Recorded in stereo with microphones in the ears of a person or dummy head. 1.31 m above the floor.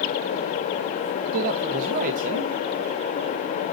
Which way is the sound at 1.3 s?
40° right (ahead or behind).